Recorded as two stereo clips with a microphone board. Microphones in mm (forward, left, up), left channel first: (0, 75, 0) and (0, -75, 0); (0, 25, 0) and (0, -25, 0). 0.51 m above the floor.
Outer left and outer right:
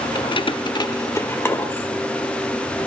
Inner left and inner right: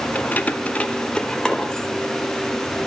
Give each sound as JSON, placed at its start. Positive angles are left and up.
{"t": 0.1, "sound": "keys jangling", "side_deg": 30, "distance_m": 0.6}